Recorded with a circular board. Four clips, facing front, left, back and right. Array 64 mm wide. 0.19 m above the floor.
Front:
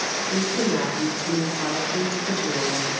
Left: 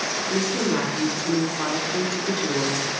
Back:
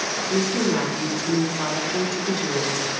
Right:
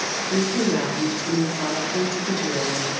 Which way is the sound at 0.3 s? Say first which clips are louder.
Right 2 dB, back 2 dB; 125° left.